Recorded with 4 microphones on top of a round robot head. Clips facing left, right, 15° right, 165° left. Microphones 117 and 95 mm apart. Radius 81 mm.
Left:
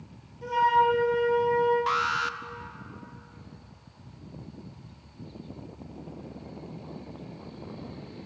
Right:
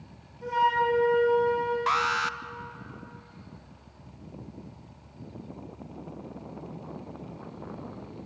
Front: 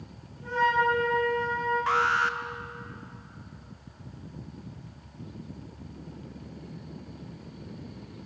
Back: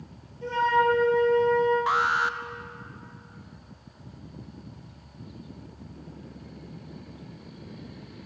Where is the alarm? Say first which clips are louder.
Right 1 dB, back 1 dB; 120° right, 0.7 m.